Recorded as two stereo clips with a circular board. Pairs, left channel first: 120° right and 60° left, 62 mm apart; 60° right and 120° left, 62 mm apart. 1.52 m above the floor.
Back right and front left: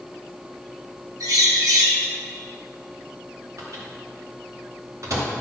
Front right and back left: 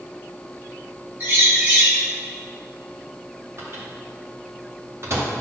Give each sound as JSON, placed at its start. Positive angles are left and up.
{"t": 1.2, "sound": "a bird", "azimuth_deg": 65, "distance_m": 2.5}
{"t": 3.6, "sound": "a microwave", "azimuth_deg": 80, "distance_m": 2.5}